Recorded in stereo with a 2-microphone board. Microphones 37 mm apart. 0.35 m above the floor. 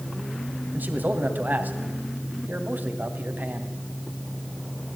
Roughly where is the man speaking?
Right.